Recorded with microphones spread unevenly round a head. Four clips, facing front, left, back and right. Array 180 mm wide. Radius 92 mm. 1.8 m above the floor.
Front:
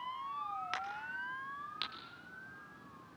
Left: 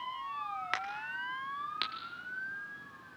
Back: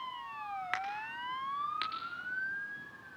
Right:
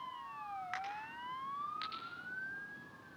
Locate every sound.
0.7 s a crack: 100° left, 5 m